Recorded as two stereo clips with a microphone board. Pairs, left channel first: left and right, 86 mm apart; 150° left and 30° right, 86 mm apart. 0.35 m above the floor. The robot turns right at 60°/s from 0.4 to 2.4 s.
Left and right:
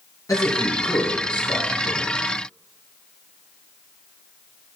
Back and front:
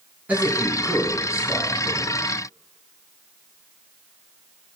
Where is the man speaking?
40° left, 3.5 m; by 2.0 s 140° left, 3.5 m.